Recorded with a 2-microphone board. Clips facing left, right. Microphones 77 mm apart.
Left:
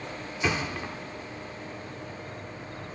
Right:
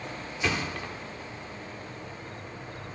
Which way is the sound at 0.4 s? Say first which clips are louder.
Left 1 dB; 10° left (ahead or behind).